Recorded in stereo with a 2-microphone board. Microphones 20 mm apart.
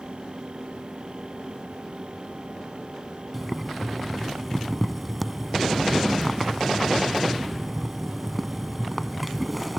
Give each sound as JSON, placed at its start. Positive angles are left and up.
{"t": 3.3, "sound": "boiling", "side_deg": 0}